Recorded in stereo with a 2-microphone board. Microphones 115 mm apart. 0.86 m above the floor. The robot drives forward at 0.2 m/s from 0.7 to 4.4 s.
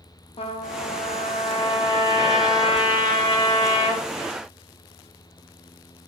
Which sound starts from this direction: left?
A trumpet, at 0.4 s.